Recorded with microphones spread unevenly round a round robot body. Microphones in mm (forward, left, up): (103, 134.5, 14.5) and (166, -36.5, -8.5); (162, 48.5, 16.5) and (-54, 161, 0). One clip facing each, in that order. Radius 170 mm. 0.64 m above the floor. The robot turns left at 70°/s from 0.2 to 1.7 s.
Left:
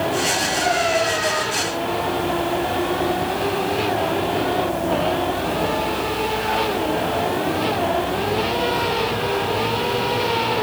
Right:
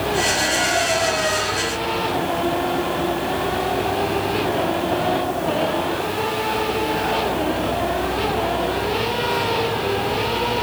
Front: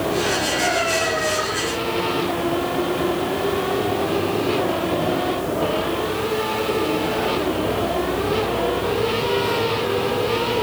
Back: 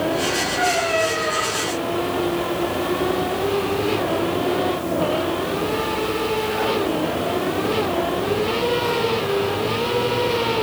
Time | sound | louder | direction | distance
0.6 | a cat meowing | left 4 dB, back 1 dB | 115° right | 7.5 m